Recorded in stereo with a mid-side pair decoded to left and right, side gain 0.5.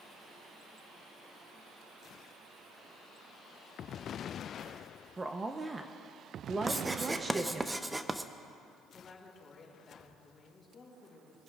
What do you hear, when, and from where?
5.2 s a woman speaking: 25° right, 0.7 m
6.7 s writing: 10° right, 0.6 m
8.9 s a woman speaking: 35° left, 4.5 m